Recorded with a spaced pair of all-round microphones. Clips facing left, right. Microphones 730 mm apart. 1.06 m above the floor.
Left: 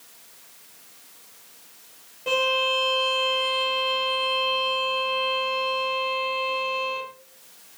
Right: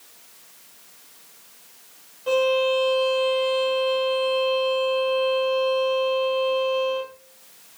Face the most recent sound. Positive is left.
turn(degrees=60)  # may be behind; listen again after turning